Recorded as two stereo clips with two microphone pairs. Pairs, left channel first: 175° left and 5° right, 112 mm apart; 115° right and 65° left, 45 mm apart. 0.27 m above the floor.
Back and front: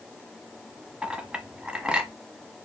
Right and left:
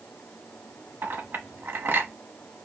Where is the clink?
75° left, 1.0 m.